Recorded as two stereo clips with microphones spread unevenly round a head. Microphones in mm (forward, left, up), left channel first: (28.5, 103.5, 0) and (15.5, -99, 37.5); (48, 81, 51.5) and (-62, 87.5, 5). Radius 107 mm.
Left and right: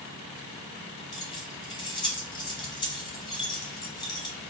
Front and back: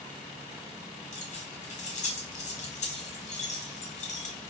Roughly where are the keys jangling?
Ahead.